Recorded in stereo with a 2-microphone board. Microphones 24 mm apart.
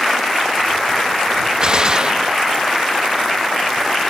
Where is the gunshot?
35° right (ahead or behind).